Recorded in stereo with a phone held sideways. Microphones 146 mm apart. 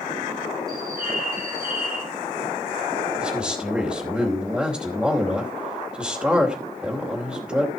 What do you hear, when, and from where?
0.7 s a bird: 85° right, 9.5 m
3.2 s a man speaking: 10° right (ahead or behind), 3 m